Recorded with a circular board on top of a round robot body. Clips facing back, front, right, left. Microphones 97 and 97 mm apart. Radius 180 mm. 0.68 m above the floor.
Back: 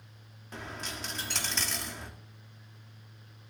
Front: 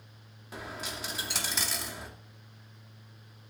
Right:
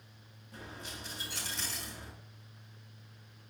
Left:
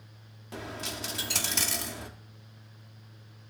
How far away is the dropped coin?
About 0.9 m.